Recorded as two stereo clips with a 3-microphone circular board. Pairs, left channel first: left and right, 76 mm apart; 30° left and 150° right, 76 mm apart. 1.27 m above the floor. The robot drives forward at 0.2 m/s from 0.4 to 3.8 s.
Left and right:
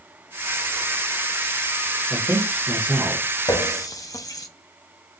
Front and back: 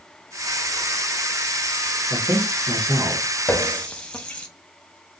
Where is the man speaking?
145° right, 0.9 m; by 3.2 s 150° right, 1.1 m.